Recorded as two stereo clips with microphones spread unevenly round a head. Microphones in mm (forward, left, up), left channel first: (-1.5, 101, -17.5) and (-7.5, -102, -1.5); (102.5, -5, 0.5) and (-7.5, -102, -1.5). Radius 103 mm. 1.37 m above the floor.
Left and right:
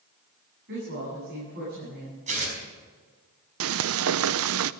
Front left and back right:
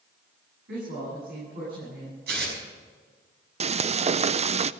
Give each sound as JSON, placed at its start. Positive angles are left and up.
{"t": 0.7, "sound": "a woman speaking", "azimuth_deg": -130, "distance_m": 9.5}
{"t": 2.3, "sound": "tearing paper", "azimuth_deg": -145, "distance_m": 5.0}
{"t": 3.6, "sound": "frying", "azimuth_deg": -90, "distance_m": 0.5}